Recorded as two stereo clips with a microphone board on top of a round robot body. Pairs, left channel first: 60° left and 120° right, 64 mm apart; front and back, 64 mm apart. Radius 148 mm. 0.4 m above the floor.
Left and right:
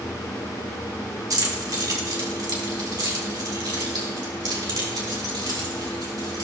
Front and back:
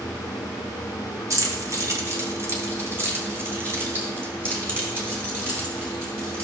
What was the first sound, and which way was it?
Keys jangling, 145° right.